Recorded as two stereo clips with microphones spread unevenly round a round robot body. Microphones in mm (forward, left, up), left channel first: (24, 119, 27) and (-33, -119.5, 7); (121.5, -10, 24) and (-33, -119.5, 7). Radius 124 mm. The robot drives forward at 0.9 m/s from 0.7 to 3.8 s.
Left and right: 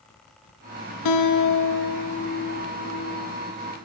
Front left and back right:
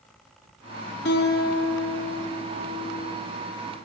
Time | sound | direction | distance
1.1 | a guitar | 85° left | 2.5 m